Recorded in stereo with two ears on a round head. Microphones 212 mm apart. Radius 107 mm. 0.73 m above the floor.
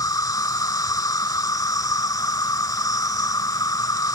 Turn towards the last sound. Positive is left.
turn(degrees=15)  # may be behind; listen again after turning